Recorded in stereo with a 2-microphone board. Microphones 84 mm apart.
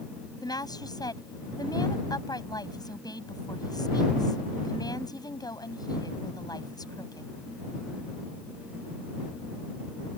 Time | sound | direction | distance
0.4 | a woman speaking | 50° left (ahead or behind) | ?